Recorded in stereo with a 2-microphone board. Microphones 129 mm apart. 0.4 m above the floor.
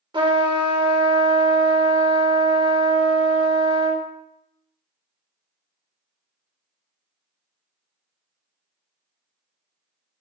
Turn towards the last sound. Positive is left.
turn(degrees=-40)  # may be behind; listen again after turning